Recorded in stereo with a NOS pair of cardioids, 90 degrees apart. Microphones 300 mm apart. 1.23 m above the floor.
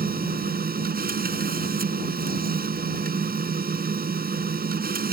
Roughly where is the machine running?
Ahead right.